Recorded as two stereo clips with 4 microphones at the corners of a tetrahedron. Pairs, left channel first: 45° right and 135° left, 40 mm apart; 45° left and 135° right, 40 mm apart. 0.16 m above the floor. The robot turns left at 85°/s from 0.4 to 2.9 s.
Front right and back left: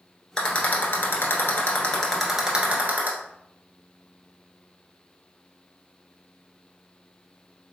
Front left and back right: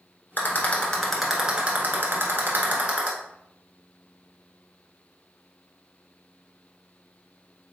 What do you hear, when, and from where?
0.4 s a rattle: 20° left, 1.2 m; by 3.1 s 170° left, 1.2 m